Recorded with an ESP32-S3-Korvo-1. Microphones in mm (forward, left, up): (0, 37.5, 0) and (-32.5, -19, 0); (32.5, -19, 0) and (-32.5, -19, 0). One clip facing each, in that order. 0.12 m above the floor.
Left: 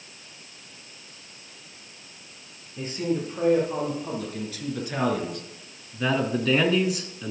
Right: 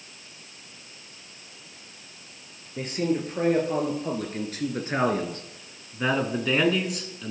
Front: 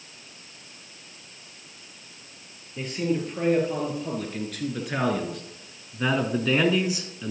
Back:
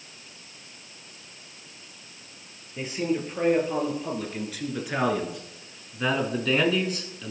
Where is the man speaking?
100° right, 2.5 m; by 7.3 s 30° left, 1.2 m.